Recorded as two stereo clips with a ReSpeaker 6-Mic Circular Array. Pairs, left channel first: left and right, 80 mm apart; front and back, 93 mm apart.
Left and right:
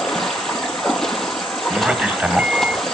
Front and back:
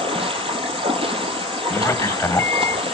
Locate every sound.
0.0 s running water: 175° left, 1.2 m
1.7 s a man speaking: 40° right, 1.4 m